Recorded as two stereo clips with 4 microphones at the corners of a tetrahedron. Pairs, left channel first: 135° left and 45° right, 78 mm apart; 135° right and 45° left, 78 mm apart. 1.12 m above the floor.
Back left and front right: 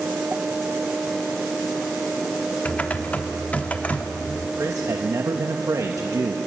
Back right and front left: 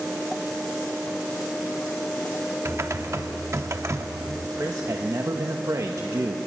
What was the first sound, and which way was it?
Typing on a keyboard, 70° left.